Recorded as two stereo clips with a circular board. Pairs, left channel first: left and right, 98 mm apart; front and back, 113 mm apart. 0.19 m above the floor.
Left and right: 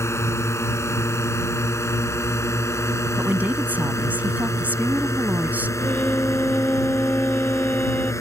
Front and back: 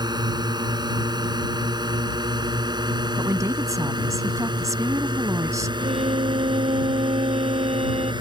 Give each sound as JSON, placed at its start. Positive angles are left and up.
{"t": 0.0, "sound": "a drone", "azimuth_deg": 145}
{"t": 3.2, "sound": "a woman speaking", "azimuth_deg": -145}
{"t": 5.8, "sound": "a violin", "azimuth_deg": 160}